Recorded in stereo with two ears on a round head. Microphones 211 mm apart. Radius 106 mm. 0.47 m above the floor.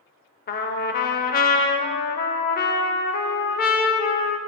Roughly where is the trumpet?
Left.